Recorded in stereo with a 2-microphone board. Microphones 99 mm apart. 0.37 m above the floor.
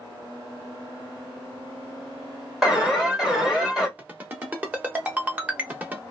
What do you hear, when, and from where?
2.6 s an alarm: centre (ahead or behind), 1.6 m
4.0 s a ringtone: 15° right (ahead or behind), 0.9 m